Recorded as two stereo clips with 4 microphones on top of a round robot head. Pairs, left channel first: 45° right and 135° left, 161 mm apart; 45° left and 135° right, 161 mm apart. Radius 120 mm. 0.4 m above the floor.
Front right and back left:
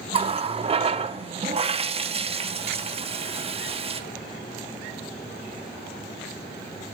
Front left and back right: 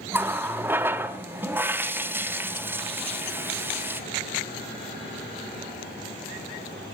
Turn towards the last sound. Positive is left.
turn(degrees=155)